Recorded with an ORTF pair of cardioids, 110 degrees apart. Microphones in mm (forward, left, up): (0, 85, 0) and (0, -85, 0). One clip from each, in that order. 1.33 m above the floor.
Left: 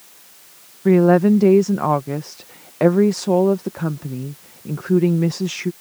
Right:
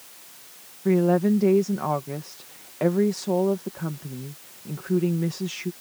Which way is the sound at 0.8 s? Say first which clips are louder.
Left 7 dB; 40° left.